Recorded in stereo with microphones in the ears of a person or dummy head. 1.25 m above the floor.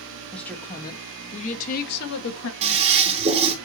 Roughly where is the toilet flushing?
Right.